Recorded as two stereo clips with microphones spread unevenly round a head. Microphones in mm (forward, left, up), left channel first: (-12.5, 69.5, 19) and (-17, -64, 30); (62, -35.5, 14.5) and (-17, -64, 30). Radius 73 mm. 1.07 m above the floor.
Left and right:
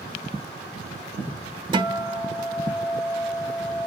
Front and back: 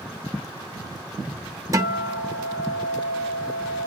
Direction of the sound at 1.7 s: 125° right.